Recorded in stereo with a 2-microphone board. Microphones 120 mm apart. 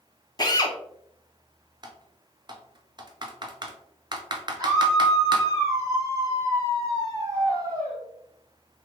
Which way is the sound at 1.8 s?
40° right (ahead or behind).